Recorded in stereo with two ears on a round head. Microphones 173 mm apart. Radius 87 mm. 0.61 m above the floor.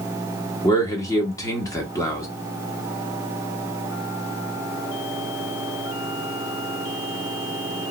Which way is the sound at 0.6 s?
15° left (ahead or behind).